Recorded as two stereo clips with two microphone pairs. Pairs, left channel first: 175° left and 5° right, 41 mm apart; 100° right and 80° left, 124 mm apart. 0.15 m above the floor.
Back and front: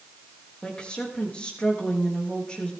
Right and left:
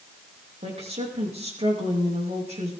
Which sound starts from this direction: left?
A woman speaking, at 0.6 s.